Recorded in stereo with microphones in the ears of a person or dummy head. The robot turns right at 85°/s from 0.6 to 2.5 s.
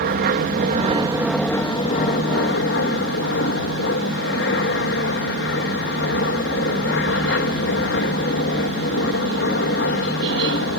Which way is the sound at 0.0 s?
65° right.